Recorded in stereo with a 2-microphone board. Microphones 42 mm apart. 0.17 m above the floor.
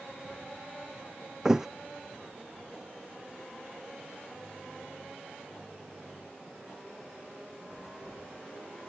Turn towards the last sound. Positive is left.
turn(degrees=-10)  # may be behind; listen again after turning